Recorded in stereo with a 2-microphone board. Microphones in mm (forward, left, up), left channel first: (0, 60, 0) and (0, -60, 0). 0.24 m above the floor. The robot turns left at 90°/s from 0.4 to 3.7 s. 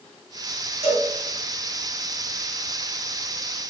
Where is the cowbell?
55° right (ahead or behind), 1.2 m; by 1.1 s 50° right (ahead or behind), 1.2 m.